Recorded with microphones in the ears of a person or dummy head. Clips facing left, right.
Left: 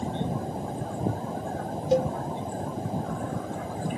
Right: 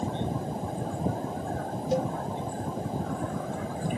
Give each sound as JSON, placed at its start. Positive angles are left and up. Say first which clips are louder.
{"t": 1.9, "sound": "a cowbell", "louder": "left 5 dB", "side_deg": 65, "distance_m": 0.5}